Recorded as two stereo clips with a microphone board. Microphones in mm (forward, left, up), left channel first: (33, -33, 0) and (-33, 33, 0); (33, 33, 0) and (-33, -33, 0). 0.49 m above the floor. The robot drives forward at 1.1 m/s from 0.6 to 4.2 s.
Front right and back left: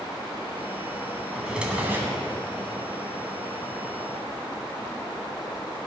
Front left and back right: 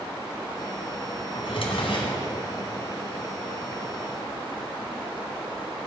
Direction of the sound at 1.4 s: 50° left.